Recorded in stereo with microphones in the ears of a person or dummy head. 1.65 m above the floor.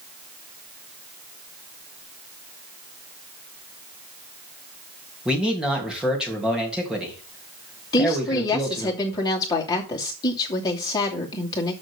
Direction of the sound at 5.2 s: Centre (ahead or behind).